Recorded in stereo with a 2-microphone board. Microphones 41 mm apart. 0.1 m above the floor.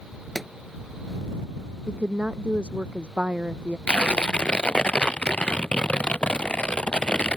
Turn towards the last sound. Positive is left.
turn(degrees=30)  # may be behind; listen again after turning